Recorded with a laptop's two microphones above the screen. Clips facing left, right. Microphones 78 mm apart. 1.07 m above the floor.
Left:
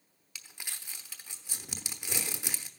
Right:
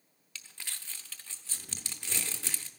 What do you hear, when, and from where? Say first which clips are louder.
0.3 s crumpling: even; 15° left (ahead or behind), 0.8 m